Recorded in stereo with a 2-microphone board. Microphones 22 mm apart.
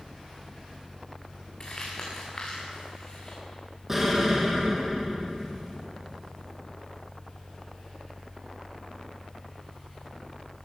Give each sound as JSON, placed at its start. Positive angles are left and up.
{"t": 1.6, "sound": "crumpling", "side_deg": 35, "distance_m": 4.5}
{"t": 3.9, "sound": "an explosion", "side_deg": -10, "distance_m": 2.5}